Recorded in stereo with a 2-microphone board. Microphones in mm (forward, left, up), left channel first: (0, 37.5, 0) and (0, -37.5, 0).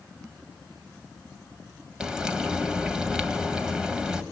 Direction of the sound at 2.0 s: 10° right (ahead or behind).